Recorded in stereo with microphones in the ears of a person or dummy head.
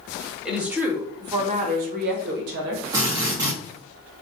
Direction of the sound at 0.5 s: 5° right (ahead or behind).